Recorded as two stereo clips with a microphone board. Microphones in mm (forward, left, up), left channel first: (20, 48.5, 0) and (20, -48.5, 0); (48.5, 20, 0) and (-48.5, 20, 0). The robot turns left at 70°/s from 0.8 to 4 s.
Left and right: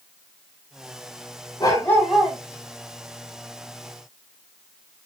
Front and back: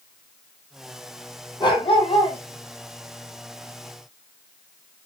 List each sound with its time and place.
1.6 s a dog barking: 40° left, 6.5 m; by 2.4 s 15° right, 6.5 m